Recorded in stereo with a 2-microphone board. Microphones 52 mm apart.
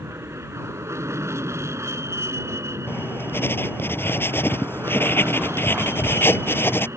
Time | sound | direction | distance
0.0 | an aircraft | 65° right (ahead or behind) | ?
2.9 | writing | 50° left (ahead or behind) | ?